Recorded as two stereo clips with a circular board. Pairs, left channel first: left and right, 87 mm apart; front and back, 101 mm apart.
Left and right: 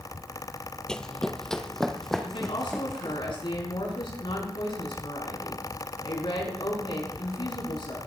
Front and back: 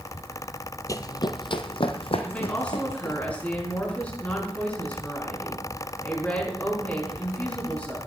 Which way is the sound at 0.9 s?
15° left.